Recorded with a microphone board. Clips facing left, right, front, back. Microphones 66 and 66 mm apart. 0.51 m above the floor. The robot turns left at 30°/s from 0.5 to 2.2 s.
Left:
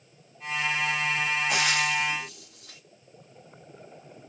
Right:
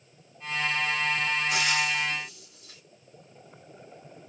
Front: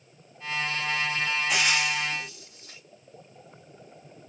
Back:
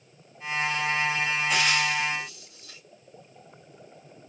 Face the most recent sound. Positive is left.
turn(degrees=60)